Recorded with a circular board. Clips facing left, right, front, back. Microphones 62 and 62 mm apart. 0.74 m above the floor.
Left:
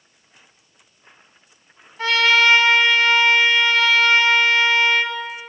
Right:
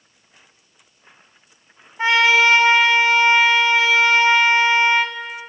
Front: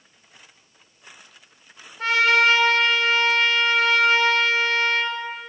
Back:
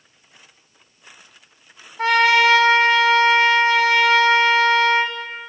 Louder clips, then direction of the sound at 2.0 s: Right 2 dB, back 3 dB; 160° right.